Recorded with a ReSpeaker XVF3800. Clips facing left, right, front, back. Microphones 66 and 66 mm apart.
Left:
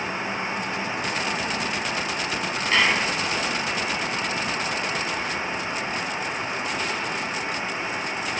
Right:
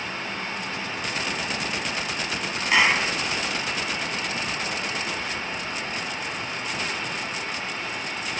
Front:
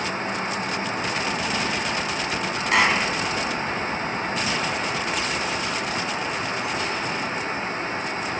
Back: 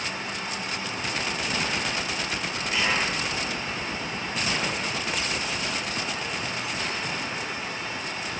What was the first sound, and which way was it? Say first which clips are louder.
A clap: right 1 dB, front 6 dB; 15° right.